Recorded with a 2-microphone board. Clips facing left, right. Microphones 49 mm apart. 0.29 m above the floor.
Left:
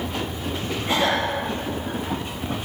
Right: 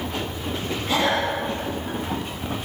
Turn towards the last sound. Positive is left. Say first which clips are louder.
# even
turn(degrees=15)  # may be behind; listen again after turning